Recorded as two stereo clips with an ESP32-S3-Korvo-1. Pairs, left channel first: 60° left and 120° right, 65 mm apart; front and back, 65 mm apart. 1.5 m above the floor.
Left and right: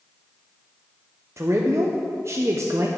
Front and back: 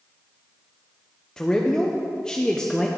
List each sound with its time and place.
1.4 s a man speaking: 75° right, 0.6 m